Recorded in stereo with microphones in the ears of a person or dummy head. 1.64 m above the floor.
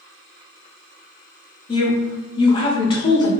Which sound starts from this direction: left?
A woman speaking, at 1.7 s.